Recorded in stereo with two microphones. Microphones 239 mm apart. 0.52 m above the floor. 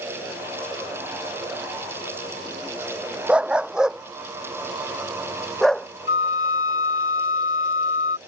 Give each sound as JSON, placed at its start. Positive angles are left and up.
{"t": 3.3, "sound": "a dog barking", "side_deg": -5}
{"t": 6.1, "sound": "a flute", "side_deg": 55}